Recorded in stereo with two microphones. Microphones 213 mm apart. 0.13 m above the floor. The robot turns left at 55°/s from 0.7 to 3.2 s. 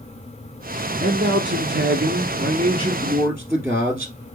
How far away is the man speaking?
About 2.5 m.